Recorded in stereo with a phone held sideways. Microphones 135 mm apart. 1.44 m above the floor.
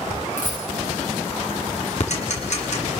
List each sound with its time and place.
0.4 s a dropped coin: 70° left (ahead or behind), 7.5 m
2.0 s ticking: 60° left (ahead or behind), 4.5 m